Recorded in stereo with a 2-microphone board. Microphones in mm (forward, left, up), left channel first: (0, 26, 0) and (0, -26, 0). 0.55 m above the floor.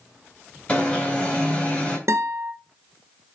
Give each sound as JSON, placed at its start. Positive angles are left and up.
{"t": 0.7, "sound": "an alarm", "side_deg": 20, "distance_m": 3.0}
{"t": 2.1, "sound": "a guitar", "side_deg": -75, "distance_m": 1.9}